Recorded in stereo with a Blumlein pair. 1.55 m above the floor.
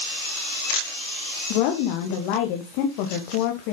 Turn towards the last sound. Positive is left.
turn(degrees=45)